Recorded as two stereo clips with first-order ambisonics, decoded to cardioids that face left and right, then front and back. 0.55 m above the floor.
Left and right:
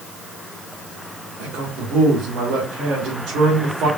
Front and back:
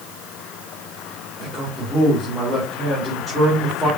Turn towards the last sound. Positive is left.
turn(degrees=-100)